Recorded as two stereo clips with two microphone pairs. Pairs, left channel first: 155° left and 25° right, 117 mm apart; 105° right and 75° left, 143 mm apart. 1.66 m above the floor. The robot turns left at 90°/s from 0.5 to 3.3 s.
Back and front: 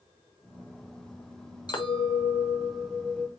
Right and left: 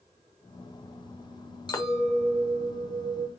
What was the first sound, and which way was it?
A clink, 160° right.